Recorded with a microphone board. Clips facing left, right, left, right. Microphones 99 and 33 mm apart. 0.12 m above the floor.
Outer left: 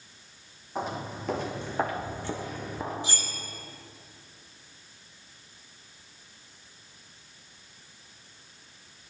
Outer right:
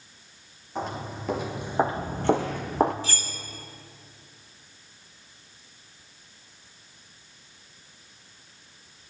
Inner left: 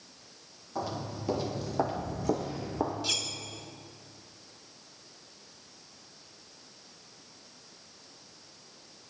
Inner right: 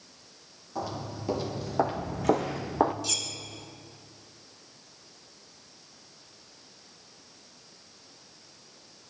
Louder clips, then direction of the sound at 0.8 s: Outer right 1 dB, even; 5° left (ahead or behind).